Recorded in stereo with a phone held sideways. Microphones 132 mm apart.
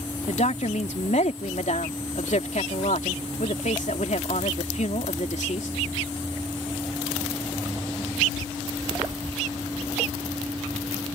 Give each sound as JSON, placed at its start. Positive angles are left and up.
{"t": 0.3, "sound": "a woman speaking", "side_deg": 65}